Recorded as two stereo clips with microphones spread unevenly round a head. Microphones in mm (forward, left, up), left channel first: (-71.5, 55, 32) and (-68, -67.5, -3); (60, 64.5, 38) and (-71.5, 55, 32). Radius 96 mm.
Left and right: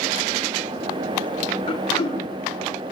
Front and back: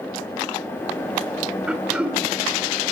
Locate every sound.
1.7 s throat clearing: 100° left, 2.5 m